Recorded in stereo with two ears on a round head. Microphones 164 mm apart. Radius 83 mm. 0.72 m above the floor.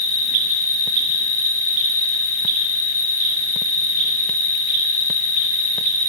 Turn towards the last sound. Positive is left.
turn(degrees=85)